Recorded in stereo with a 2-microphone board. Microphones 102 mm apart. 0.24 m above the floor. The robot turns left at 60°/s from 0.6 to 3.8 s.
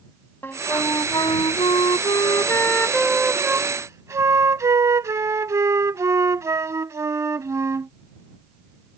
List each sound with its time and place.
0.4 s a flute: 150° left; by 7.9 s 40° right